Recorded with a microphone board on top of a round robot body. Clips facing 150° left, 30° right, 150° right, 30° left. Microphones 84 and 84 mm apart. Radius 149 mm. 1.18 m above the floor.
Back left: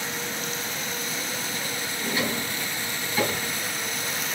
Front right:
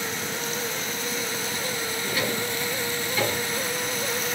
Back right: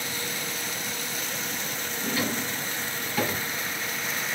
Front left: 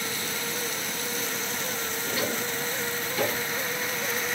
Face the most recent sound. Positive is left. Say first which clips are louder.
# back left 1 dB, back right 2 dB
turn(degrees=-150)